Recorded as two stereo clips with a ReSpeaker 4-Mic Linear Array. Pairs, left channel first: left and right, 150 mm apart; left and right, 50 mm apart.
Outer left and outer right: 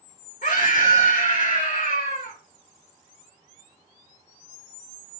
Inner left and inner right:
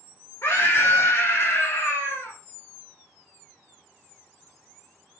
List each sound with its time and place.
0.4 s a scream: 75° left (ahead or behind), 3 m